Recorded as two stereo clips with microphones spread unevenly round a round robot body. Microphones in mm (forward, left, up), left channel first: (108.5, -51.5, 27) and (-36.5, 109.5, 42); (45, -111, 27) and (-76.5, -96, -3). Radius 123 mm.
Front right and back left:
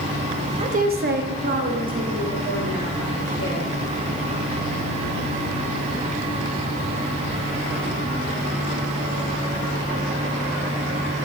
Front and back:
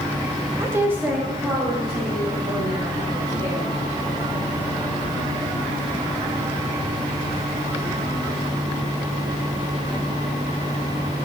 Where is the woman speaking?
175° right, 0.7 m; by 3.6 s 80° left, 4.5 m.